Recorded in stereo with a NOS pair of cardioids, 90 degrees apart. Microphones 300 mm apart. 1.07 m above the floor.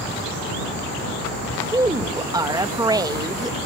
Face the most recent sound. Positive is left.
turn(degrees=-10)